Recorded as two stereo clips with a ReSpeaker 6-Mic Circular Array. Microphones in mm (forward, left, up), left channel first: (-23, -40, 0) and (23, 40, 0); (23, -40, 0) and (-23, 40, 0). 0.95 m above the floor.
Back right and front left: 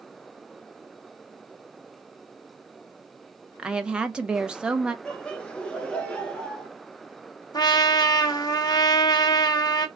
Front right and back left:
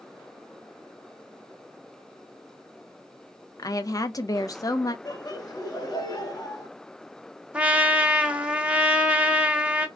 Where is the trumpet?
165° right, 0.7 m.